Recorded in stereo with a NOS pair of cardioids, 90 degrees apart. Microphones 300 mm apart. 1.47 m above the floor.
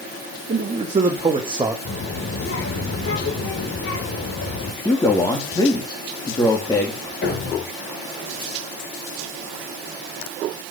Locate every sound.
0.5 s a man speaking: 25° right, 3 m; by 1.8 s 10° right, 1.9 m
1.9 s a child speaking: 45° left, 4.5 m
4.8 s a man speaking: 15° left, 3.5 m
7.2 s a thud: 40° left, 5 m